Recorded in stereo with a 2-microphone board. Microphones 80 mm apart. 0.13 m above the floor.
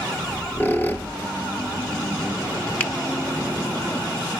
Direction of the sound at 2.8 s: 20° left (ahead or behind).